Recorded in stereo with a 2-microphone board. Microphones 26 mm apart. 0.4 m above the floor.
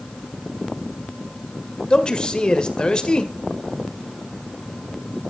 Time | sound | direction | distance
1.9 | a man speaking | 30° left (ahead or behind) | 1.7 m